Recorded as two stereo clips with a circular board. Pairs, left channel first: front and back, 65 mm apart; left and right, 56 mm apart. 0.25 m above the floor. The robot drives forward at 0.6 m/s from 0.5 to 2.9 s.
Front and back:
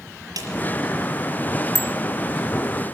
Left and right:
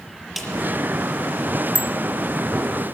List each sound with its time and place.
0.4 s a snare drum: straight behind, 6 m
1.8 s a bicycle bell: 90° left, 2.5 m; by 1.9 s 95° left, 2.5 m